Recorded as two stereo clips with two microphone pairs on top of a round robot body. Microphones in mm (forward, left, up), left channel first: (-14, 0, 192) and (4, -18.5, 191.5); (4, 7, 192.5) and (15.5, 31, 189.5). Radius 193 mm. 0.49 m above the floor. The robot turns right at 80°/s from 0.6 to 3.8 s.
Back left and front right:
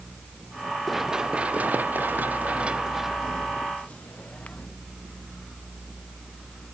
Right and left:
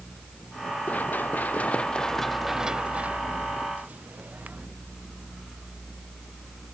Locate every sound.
0.9 s running footsteps: 135° right; by 4.7 s 85° left